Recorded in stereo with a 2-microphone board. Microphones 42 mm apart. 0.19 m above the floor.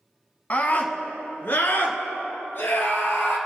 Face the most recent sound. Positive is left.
turn(degrees=65)  # may be behind; listen again after turning